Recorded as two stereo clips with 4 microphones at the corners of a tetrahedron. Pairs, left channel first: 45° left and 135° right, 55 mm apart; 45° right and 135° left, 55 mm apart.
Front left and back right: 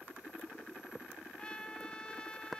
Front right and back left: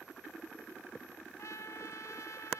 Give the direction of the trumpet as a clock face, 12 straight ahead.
1 o'clock.